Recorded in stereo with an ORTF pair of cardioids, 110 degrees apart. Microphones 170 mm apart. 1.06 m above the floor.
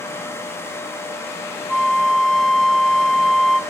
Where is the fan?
15° left, 0.9 m.